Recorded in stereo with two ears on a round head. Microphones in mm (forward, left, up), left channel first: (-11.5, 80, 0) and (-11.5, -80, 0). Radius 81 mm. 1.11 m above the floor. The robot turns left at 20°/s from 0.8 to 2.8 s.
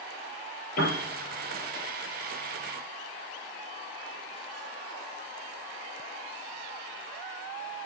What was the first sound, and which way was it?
A piano, 50° left (ahead or behind).